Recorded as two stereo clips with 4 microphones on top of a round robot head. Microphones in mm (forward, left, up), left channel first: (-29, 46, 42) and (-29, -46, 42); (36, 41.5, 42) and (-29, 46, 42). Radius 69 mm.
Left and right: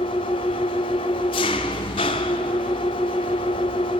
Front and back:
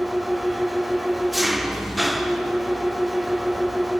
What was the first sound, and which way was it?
An engine running, 90° left.